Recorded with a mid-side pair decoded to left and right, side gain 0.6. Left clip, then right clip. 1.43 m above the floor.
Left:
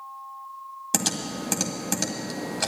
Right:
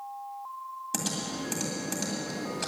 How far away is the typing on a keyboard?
About 2 m.